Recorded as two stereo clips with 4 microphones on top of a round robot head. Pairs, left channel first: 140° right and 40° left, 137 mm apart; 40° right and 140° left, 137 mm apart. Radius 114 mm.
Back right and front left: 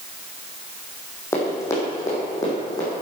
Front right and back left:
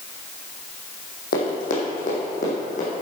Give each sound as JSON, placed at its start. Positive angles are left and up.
{"t": 1.3, "sound": "running footsteps", "azimuth_deg": -65, "distance_m": 3.0}